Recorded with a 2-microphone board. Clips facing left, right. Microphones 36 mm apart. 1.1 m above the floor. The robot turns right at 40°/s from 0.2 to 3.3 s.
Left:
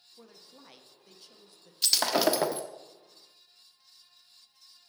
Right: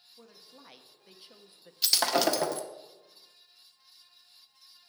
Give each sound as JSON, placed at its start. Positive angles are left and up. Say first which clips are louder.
{"t": 0.2, "sound": "a woman speaking", "louder": "left 1 dB", "azimuth_deg": 180, "distance_m": 0.8}
{"t": 1.8, "sound": "breaking glass", "louder": "even", "azimuth_deg": -5, "distance_m": 0.9}